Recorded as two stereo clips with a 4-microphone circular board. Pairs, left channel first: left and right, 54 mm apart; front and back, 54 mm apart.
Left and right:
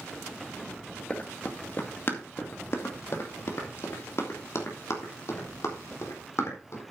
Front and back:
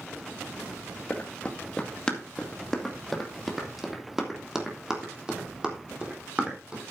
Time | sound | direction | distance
1.1 | running footsteps | 45° left | 2 m